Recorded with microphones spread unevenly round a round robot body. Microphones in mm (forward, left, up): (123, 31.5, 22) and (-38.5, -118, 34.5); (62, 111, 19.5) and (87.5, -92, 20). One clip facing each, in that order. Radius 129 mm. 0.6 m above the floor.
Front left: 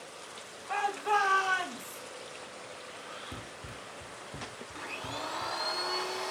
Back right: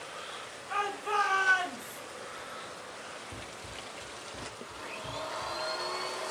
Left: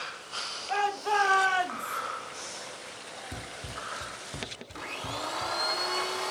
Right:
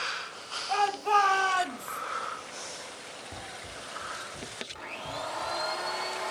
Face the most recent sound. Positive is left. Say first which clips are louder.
# front left 1 dB, left 2 dB
turn(degrees=65)